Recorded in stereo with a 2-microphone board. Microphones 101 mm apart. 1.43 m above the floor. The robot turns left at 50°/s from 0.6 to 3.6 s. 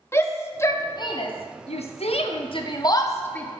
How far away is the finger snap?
No finger snap in this recording.